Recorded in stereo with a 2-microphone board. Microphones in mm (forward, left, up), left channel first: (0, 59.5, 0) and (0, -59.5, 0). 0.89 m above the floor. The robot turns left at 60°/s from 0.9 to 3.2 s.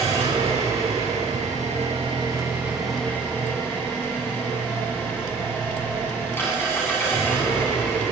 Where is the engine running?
60° right, 8.5 m; by 8.1 s 160° left, 8.5 m.